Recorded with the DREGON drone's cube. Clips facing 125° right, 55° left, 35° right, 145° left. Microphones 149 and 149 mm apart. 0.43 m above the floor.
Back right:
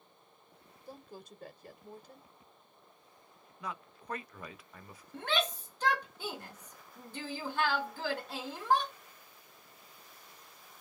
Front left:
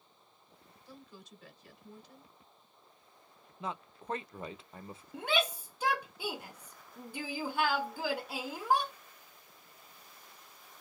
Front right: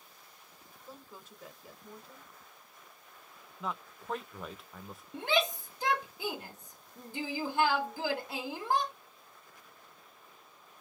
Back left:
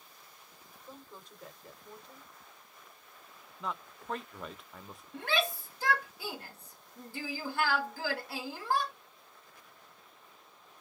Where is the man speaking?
50° left, 0.8 m.